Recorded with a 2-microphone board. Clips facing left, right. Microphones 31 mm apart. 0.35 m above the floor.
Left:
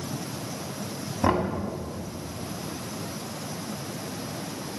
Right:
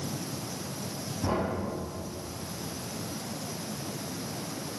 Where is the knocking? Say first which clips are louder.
Left 6 dB; 60° left (ahead or behind), 2 m.